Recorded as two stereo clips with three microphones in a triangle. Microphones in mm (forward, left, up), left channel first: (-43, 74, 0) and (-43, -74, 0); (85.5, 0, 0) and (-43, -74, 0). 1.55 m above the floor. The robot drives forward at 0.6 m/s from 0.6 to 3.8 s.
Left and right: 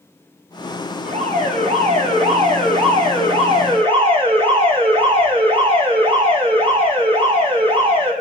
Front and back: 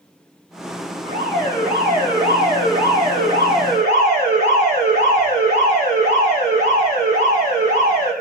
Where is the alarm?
130° right, 4.5 m; by 8.1 s 145° right, 5.5 m.